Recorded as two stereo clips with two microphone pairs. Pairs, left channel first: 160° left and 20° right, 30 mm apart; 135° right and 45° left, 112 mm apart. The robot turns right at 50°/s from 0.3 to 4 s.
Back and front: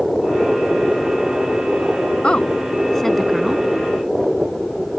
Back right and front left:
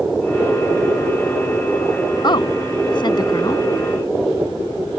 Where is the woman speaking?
160° right; by 3.6 s 90° right.